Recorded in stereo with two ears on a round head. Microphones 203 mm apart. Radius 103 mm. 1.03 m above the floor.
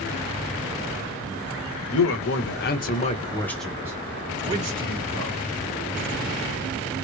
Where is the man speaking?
60° left (ahead or behind), 1.1 m; by 5.4 s 45° right (ahead or behind), 1.3 m.